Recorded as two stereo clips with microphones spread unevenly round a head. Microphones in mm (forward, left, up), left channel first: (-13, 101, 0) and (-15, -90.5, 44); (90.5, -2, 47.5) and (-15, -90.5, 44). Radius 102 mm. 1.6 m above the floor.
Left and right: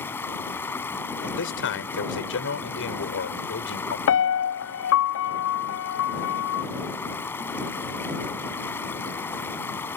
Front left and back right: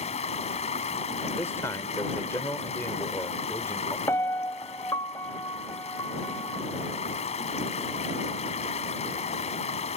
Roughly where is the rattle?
I don't hear a rattle.